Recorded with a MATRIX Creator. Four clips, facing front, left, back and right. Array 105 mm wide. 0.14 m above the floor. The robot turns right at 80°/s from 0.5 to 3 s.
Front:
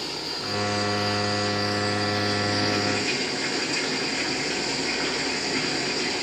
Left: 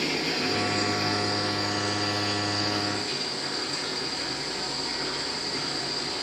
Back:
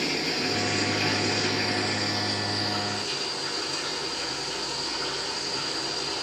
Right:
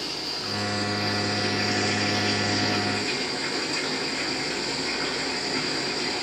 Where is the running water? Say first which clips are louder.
Left 6 dB, back 4 dB; 135° left, 3 m; by 6.2 s 25° right, 3 m.